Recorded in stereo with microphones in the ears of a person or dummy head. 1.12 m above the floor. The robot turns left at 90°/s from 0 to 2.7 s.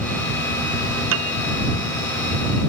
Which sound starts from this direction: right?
A piano, at 1.1 s.